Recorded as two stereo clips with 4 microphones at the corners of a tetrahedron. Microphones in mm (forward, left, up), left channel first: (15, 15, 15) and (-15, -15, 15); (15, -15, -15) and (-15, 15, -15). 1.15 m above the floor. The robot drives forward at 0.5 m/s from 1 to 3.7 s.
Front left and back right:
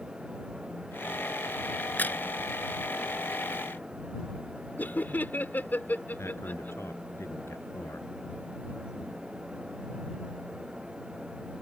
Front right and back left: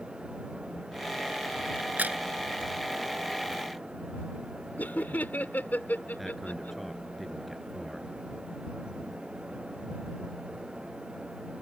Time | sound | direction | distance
1.8 | a crack | 85° left | ?
4.8 | laughter | straight ahead | ?
6.2 | a man speaking | 45° left | ?